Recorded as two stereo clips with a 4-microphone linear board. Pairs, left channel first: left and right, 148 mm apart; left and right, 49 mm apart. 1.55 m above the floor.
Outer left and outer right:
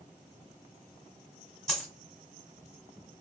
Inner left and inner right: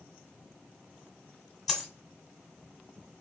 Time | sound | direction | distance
1.7 | a dropped coin | centre (ahead or behind) | 1.3 m